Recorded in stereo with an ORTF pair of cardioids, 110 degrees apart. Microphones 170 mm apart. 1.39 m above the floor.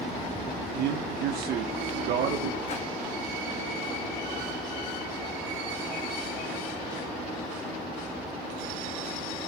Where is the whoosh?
40° left, 2.0 m.